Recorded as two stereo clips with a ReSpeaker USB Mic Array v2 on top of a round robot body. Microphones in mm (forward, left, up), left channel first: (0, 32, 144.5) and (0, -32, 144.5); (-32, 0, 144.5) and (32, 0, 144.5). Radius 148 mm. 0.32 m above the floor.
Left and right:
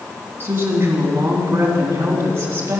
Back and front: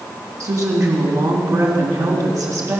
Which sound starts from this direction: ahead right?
A woman speaking, at 0.4 s.